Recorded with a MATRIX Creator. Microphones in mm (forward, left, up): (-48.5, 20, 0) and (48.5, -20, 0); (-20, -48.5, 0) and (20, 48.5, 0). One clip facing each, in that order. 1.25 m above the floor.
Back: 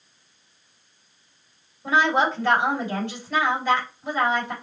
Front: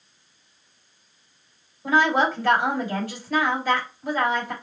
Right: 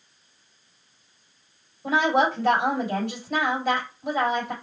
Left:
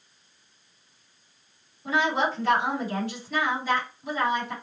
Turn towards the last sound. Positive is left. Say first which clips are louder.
# front 1 dB, right 4 dB
turn(degrees=-105)